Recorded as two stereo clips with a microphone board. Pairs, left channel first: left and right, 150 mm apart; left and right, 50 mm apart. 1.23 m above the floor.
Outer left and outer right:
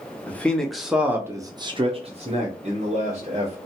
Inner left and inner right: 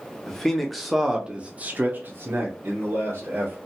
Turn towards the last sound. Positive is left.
turn(degrees=-50)  # may be behind; listen again after turning